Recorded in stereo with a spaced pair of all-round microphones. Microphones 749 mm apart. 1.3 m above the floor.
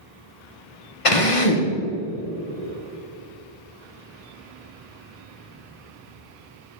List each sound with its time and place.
1.1 s a drill: 45° left (ahead or behind), 0.9 m